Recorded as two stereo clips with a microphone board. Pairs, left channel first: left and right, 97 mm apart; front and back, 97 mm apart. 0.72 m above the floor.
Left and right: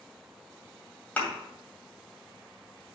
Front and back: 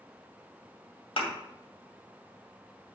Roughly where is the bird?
I don't hear a bird.